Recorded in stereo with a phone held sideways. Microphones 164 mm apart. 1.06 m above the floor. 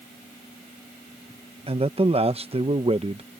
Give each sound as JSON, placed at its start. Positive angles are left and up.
{"t": 1.7, "sound": "a man speaking", "side_deg": -35}